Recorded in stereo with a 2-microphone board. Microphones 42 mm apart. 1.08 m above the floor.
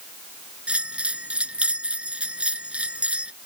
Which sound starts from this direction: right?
A bell, at 0.7 s.